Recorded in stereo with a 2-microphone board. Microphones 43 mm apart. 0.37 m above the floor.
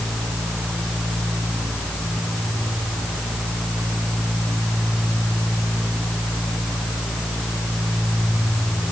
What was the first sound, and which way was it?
Only background noise.